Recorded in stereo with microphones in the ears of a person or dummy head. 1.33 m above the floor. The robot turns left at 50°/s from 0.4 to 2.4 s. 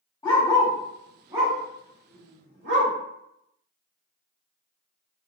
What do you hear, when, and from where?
0.2 s a dog barking: 15° left (ahead or behind), 1.4 m; by 2.9 s 60° right (ahead or behind), 1.4 m